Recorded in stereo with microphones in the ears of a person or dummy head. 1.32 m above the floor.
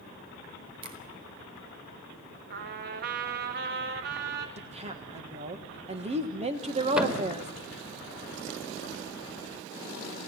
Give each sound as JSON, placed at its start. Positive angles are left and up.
{"t": 0.8, "sound": "a finger snap", "side_deg": -30, "distance_m": 4.0}
{"t": 2.5, "sound": "a trumpet", "side_deg": -55, "distance_m": 1.9}
{"t": 4.6, "sound": "a woman speaking", "side_deg": -35, "distance_m": 1.4}
{"t": 7.0, "sound": "a thud", "side_deg": -5, "distance_m": 2.0}